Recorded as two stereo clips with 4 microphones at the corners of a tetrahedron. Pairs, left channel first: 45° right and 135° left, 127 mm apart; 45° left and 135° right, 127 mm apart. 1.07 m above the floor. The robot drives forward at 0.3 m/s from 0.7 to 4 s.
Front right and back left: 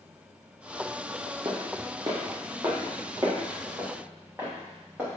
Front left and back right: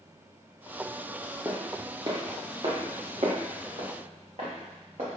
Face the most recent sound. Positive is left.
turn(degrees=-150)